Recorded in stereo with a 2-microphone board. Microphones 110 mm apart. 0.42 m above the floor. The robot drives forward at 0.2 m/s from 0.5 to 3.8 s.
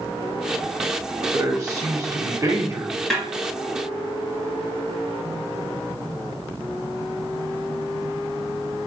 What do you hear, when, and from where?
1.3 s a man speaking: 35° right (ahead or behind), 1.3 m; by 2.9 s 30° right (ahead or behind), 1.5 m
3.1 s a snare drum: centre (ahead or behind), 1.8 m